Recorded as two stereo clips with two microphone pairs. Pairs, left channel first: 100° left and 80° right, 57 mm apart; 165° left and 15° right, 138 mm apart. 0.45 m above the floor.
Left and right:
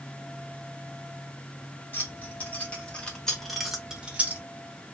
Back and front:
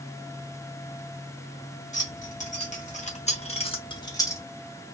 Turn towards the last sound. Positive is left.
turn(degrees=-130)